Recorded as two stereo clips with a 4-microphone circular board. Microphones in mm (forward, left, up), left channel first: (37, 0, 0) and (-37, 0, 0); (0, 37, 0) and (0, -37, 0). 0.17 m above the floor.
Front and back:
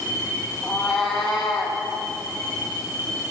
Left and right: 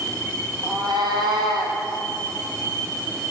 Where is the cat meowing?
85° right, 1.9 m; by 1.8 s 90° right, 3 m.